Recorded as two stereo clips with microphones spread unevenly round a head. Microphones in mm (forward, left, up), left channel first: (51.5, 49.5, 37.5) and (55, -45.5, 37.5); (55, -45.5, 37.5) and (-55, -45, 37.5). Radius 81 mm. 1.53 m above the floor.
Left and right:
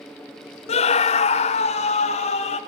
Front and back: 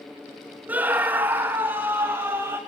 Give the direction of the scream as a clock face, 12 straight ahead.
9 o'clock.